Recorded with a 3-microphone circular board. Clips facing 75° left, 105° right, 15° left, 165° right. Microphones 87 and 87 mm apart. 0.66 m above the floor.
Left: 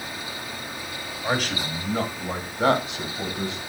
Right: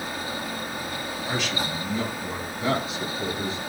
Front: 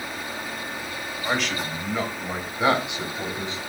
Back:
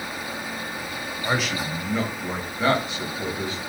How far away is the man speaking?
About 3 m.